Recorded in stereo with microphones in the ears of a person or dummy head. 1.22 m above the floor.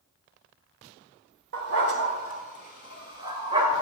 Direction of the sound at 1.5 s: 55° right (ahead or behind).